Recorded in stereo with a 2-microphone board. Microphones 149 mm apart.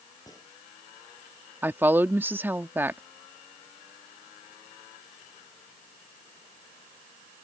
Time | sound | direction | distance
0.3 | a gunshot | 25° left (ahead or behind) | ?
1.6 | a woman speaking | 15° right (ahead or behind) | ?